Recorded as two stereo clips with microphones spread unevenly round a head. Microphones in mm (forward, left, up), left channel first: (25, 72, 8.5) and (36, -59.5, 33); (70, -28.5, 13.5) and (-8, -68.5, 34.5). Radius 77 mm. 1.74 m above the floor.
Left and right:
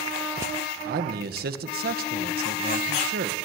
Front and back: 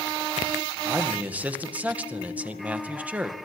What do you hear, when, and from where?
0.8 s a man speaking: 80° right, 2 m